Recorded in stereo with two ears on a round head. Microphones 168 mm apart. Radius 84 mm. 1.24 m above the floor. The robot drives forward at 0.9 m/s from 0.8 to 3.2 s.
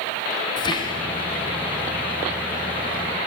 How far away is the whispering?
About 0.6 m.